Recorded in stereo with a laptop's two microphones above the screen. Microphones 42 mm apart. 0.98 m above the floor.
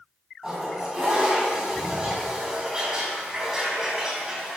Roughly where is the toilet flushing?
Centre.